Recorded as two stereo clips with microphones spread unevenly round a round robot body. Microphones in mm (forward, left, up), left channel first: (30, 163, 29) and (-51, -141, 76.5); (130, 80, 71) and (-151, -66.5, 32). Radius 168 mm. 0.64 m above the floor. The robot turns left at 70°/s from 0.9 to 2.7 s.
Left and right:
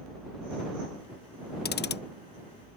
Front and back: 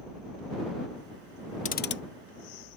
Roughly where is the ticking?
Left.